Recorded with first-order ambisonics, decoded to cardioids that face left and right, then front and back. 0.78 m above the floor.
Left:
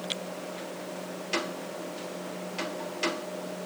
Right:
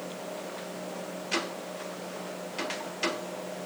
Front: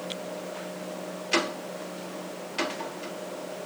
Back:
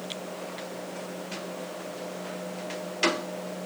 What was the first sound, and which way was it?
Only background noise.